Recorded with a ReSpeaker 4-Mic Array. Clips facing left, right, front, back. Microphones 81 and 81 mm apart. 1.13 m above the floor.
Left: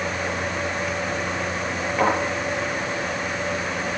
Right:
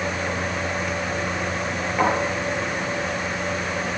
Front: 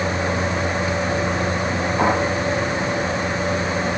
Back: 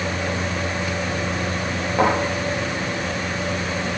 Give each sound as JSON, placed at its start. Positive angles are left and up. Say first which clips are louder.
{"t": 2.0, "sound": "a thud", "louder": "even, back 1 dB", "azimuth_deg": -175, "distance_m": 8.5}